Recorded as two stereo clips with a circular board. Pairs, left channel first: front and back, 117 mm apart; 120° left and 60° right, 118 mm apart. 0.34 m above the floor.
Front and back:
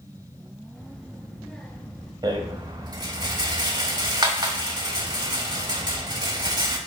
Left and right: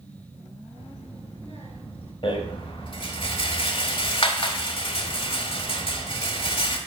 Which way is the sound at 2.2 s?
135° left.